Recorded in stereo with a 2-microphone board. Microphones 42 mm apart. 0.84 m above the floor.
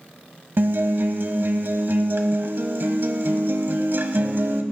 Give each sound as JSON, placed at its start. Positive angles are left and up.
{"t": 0.6, "sound": "a guitar", "side_deg": -60, "distance_m": 1.1}